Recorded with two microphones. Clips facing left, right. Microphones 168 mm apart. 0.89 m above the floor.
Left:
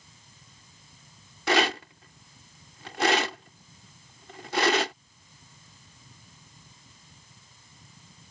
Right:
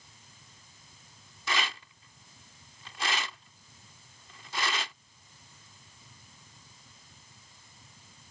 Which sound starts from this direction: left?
A rattle, at 1.5 s.